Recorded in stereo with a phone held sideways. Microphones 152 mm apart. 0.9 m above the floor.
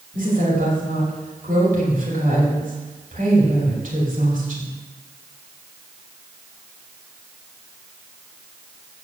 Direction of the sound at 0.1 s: 55° right (ahead or behind).